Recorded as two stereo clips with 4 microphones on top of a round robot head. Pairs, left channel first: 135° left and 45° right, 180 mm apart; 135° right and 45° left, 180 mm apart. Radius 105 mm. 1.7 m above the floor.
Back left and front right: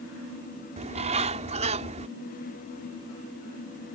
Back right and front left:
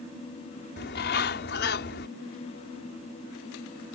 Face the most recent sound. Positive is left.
turn(degrees=-100)